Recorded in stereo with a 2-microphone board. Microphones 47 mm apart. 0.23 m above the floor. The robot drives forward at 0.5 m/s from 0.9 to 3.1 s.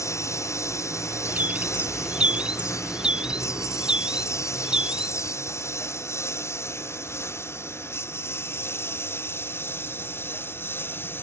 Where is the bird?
40° right (ahead or behind); by 5.3 s 20° right (ahead or behind).